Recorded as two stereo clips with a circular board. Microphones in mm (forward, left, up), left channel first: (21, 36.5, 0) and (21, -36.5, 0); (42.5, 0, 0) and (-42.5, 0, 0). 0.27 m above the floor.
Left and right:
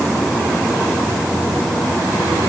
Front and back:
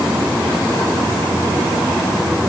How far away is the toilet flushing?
I don't hear a toilet flushing.